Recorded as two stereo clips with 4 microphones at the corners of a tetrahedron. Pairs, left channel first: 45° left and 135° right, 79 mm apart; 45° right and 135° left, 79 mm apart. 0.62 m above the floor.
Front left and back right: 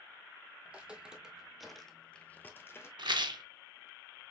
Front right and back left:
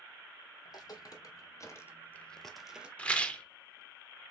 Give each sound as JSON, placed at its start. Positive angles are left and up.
{"t": 0.7, "sound": "footsteps", "azimuth_deg": -65, "distance_m": 1.1}
{"t": 3.0, "sound": "a rattle", "azimuth_deg": -120, "distance_m": 0.6}